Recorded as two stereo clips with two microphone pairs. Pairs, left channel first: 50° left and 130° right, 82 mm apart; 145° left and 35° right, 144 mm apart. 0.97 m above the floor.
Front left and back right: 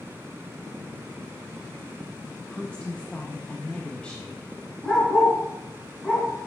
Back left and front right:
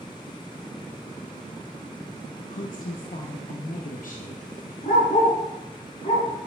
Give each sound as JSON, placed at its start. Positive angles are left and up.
{"t": 2.5, "sound": "a woman speaking", "azimuth_deg": 130, "distance_m": 0.7}
{"t": 4.8, "sound": "a dog barking", "azimuth_deg": 130, "distance_m": 3.5}